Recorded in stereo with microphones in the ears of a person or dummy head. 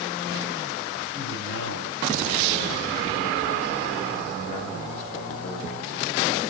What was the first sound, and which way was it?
A man speaking, 70° left (ahead or behind).